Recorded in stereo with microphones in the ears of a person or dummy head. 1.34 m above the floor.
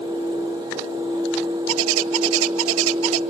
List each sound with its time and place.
1.7 s a bird: 80° right, 0.5 m